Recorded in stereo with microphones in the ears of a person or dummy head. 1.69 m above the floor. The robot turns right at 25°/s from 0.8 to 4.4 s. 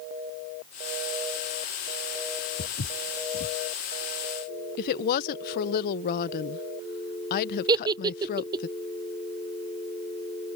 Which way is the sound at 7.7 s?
20° right (ahead or behind).